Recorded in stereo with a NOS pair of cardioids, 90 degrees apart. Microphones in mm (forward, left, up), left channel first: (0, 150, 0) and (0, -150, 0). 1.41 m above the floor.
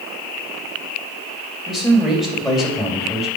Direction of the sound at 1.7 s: Straight ahead.